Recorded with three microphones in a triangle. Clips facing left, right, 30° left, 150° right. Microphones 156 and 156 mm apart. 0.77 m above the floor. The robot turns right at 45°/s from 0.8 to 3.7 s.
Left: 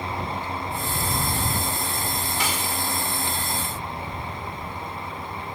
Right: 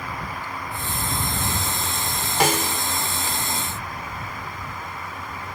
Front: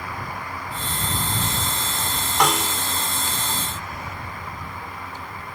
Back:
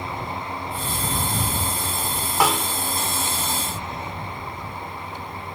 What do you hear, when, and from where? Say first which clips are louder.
2.4 s a snare drum: right 10 dB, even; 65° right; by 2.8 s 45° right